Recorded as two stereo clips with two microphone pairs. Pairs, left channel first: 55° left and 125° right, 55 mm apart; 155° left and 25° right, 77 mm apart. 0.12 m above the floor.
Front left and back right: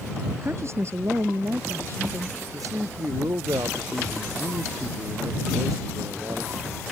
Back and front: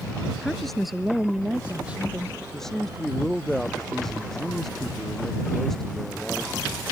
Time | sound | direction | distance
0.4 | a woman speaking | 125° right | ?
2.5 | a man speaking | 120° right | ?